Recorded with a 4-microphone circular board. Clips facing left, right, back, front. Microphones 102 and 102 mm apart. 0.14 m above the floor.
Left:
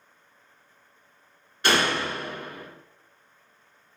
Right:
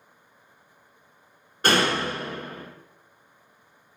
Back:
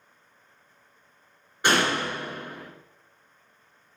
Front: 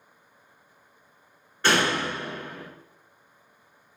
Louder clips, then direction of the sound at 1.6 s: Right 1 dB, even; 110° right.